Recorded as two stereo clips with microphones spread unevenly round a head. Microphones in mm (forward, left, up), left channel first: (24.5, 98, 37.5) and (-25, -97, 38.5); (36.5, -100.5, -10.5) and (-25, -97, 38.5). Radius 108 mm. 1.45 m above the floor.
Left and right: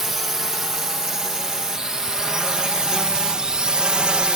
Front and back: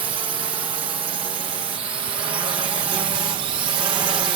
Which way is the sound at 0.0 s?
165° left.